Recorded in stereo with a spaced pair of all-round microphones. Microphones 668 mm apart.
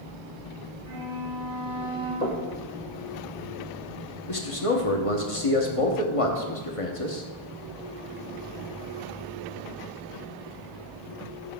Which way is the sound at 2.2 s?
70° left (ahead or behind).